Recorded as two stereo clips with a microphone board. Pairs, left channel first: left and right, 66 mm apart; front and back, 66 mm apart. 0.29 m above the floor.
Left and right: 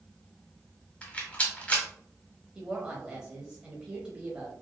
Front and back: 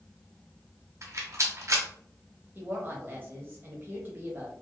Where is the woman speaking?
155° right, 1.1 m.